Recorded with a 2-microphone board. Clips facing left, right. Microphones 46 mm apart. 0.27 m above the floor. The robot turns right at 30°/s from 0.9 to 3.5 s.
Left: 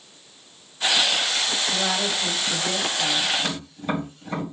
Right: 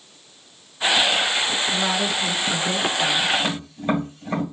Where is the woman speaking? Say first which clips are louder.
Right 2 dB; 15° left (ahead or behind), 1.2 m; by 3.3 s 20° left (ahead or behind), 1.2 m.